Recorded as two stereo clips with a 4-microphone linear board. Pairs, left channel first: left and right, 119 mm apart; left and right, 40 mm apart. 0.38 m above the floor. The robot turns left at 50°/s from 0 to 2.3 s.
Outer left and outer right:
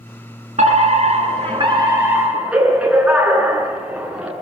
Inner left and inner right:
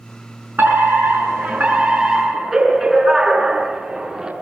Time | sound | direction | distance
0.6 | a fire alarm | 85° right | 7 m